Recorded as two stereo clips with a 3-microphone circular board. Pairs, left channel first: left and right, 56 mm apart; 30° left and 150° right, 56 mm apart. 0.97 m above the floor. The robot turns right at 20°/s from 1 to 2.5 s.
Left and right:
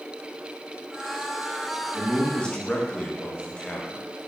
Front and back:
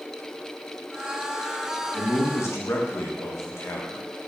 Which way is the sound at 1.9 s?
10° left.